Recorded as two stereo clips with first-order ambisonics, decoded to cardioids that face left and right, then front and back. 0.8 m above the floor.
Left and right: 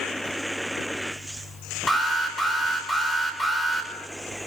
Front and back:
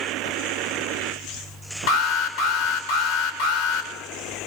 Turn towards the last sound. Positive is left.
turn(degrees=10)